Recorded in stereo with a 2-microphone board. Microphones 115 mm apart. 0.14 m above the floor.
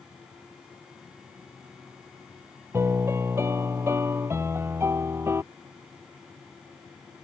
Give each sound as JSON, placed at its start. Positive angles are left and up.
{"t": 2.7, "sound": "a piano", "side_deg": -20}